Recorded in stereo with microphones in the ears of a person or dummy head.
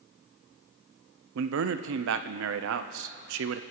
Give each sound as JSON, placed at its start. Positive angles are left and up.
{"t": 1.4, "sound": "a man speaking", "side_deg": -70, "distance_m": 0.6}